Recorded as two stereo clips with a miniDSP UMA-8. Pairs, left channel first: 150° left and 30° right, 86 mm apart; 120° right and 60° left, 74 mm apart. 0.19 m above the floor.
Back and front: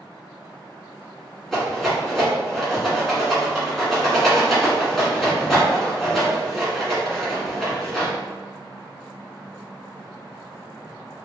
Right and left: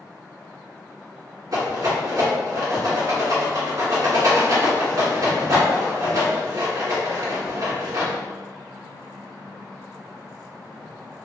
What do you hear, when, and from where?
1.5 s a rattle: 65° left, 1.7 m